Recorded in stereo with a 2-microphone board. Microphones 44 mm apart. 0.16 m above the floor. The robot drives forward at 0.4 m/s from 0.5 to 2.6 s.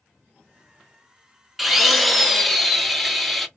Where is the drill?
Centre (ahead or behind), 0.7 m.